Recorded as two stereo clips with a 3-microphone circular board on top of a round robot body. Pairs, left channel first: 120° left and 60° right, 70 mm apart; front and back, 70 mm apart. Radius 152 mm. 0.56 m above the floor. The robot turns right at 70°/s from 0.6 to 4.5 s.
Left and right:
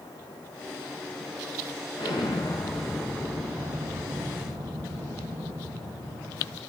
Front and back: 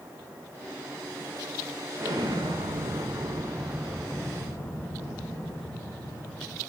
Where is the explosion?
125° left, 1.7 m; by 6.6 s 55° right, 1.7 m.